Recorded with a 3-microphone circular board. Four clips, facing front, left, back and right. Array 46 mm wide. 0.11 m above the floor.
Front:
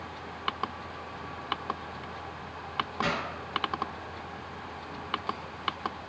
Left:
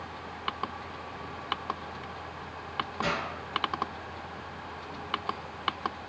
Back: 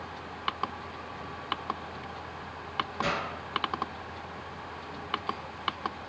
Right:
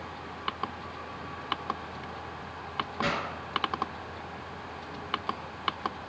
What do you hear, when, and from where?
3.0 s a pop: 55° right, 1.0 m